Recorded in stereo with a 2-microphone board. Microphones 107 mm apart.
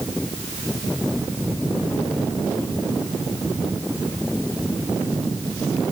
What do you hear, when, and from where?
Only background noise.